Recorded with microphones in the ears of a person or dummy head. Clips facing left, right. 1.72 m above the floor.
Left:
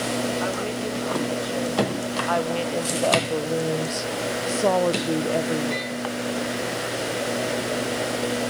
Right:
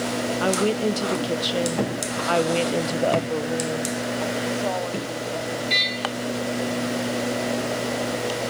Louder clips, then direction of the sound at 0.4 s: Right 5 dB; 55° right (ahead or behind).